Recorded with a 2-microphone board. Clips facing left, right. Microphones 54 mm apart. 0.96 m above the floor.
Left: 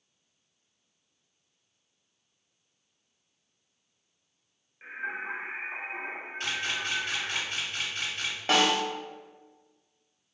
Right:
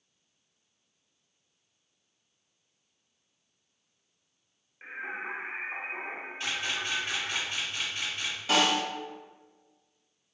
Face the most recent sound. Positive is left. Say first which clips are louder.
# left 1 dB
turn(degrees=50)  # may be behind; listen again after turning